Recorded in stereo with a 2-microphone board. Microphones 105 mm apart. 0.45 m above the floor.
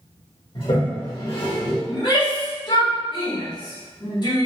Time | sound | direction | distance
0.6 | a toilet flushing | 50° left (ahead or behind) | 1.1 m
1.9 | a shout | 45° left (ahead or behind) | 1.2 m